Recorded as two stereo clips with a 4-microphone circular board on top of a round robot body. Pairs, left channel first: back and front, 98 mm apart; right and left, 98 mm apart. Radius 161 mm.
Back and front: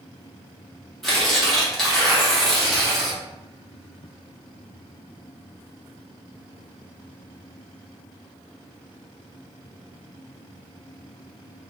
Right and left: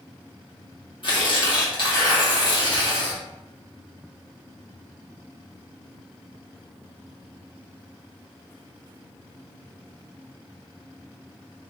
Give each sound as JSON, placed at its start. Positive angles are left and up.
{"t": 1.0, "sound": "tearing paper", "azimuth_deg": -95, "distance_m": 1.9}